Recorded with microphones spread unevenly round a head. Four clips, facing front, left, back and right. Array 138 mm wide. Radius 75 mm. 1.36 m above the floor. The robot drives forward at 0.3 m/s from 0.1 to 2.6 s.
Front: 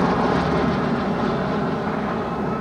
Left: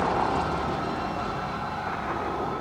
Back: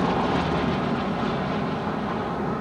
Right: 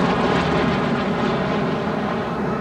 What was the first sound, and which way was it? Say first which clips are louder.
An aircraft: right 6 dB, front 4 dB; 60° right.